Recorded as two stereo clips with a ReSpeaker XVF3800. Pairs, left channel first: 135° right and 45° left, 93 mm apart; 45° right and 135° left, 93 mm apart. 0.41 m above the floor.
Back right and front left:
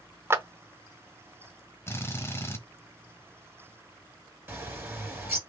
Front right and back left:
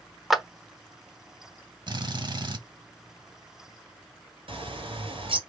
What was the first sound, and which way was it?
A clap, 50° left.